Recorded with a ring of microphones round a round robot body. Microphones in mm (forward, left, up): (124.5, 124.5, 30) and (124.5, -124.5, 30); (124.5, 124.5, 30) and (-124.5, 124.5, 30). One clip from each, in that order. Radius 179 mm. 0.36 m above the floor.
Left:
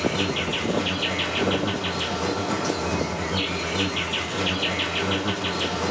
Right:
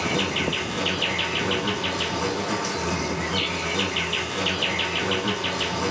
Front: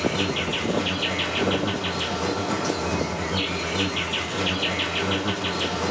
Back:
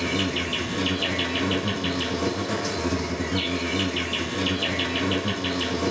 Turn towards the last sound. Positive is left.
turn(degrees=-85)